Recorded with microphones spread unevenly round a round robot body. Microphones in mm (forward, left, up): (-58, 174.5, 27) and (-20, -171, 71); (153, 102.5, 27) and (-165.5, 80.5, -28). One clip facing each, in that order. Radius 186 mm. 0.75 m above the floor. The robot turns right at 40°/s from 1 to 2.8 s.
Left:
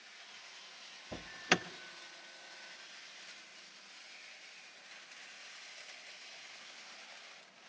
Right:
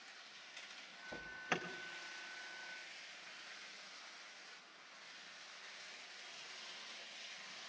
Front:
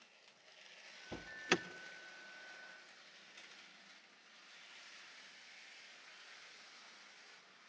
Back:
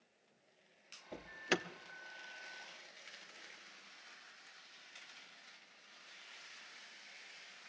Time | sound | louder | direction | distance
1.1 | an alarm | left 8 dB, even | 70° left | 0.6 m